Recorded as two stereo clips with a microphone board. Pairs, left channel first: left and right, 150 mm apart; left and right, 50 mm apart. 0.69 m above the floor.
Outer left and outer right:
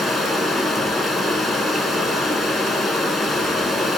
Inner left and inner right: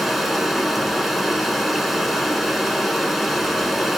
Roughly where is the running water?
Centre.